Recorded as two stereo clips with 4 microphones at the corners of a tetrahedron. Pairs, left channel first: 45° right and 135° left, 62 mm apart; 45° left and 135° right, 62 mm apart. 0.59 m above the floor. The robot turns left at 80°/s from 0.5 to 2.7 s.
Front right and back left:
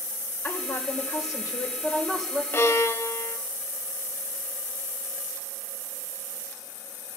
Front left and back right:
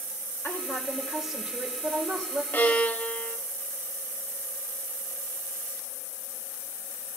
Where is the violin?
5° right, 1.1 m; by 3.4 s 20° right, 1.1 m.